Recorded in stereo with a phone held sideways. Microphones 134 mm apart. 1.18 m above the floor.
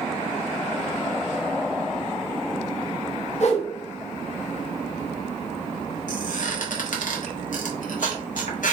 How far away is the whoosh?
About 0.7 m.